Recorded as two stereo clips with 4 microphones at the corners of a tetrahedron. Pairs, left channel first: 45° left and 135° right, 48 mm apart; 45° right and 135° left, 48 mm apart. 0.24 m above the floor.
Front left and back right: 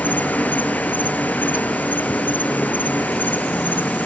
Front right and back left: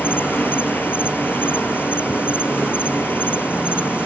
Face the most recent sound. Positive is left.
turn(degrees=-5)